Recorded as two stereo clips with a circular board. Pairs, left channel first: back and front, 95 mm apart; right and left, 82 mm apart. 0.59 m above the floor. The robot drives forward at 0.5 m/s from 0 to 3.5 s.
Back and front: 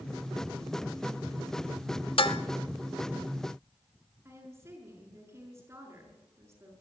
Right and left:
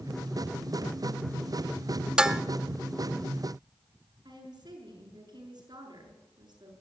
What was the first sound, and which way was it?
Dishes clattering, 170° left.